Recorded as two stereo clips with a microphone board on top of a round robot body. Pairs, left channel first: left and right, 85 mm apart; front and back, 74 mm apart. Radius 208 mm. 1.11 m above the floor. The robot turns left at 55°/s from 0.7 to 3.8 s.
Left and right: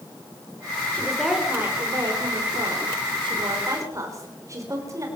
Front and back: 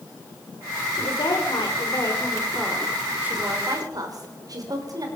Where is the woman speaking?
15° left, 5.5 m; by 5.1 s 145° right, 5.5 m.